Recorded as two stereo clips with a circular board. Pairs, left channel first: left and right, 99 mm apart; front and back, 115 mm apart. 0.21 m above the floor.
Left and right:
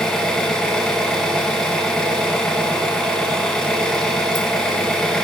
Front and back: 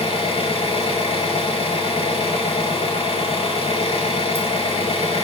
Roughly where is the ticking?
No ticking in this recording.